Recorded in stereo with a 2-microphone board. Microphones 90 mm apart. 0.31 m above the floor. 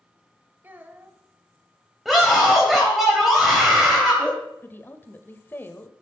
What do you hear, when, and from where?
0.6 s a child speaking: 20° right (ahead or behind), 0.8 m
2.0 s a scream: centre (ahead or behind), 1.8 m
4.6 s a woman speaking: 25° left (ahead or behind), 0.9 m